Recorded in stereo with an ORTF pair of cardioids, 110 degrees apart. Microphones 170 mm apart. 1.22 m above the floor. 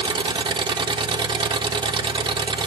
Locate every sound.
0.0 s an engine running: 25° right, 1.2 m